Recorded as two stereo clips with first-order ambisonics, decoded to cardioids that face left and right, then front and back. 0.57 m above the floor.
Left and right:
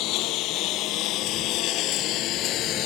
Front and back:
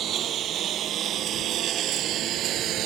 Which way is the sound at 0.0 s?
125° left.